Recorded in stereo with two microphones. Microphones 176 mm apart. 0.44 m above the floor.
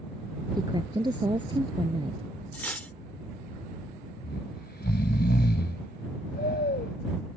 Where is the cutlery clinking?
10° left (ahead or behind).